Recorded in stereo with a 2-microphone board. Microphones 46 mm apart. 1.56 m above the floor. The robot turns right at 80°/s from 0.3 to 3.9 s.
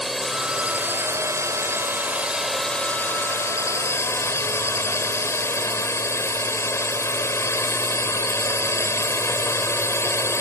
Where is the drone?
Straight behind; by 10.4 s 110° left.